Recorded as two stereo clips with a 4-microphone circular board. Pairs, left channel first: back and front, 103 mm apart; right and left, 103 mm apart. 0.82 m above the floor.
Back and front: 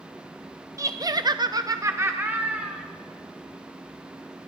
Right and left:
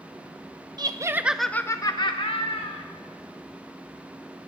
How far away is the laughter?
About 0.9 m.